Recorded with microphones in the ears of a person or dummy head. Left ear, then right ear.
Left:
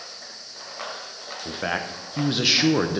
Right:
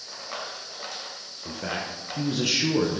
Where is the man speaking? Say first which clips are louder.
Left 4 dB; 45° left (ahead or behind), 0.9 m.